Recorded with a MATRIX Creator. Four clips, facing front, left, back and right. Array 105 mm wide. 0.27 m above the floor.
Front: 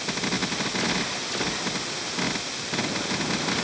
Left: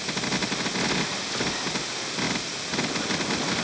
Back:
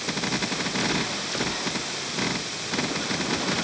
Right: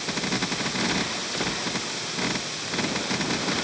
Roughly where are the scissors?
No scissors in this recording.